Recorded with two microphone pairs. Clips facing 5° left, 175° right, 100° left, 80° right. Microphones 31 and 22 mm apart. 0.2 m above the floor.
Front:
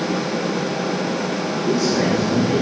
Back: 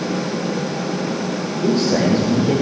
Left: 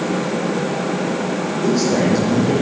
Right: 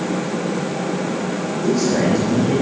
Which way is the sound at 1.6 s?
160° left.